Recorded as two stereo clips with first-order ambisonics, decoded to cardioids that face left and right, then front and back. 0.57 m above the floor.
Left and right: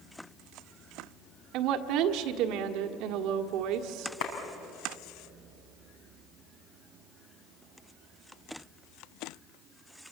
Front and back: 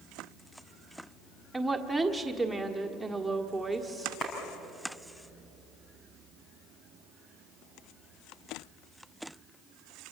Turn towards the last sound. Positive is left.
turn(degrees=75)